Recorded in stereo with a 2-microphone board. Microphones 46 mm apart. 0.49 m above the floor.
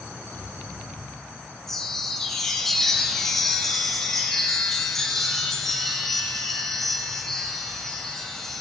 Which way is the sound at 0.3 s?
45° left (ahead or behind).